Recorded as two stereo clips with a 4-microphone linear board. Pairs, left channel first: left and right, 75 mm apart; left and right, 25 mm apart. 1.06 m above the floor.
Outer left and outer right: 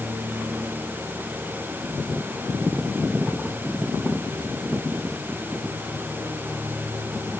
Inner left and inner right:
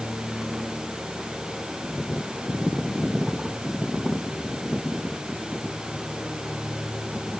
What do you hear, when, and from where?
Only background noise.